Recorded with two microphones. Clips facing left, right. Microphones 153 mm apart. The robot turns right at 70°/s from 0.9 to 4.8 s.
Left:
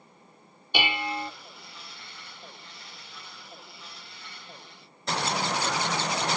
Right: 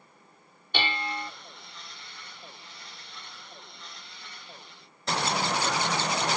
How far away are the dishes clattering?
About 0.6 m.